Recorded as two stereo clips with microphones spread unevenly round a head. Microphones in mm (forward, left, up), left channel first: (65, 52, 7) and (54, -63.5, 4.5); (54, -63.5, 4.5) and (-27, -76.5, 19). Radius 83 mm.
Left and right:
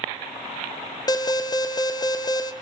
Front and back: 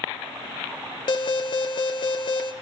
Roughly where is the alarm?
Ahead left.